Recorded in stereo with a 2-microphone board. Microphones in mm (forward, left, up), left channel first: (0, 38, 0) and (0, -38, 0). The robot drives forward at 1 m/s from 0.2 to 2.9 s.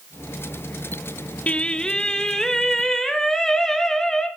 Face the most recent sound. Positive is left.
turn(degrees=5)  # may be behind; listen again after turning